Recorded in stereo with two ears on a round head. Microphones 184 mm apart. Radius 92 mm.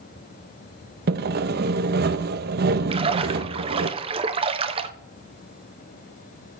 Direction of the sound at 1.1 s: 50° right (ahead or behind).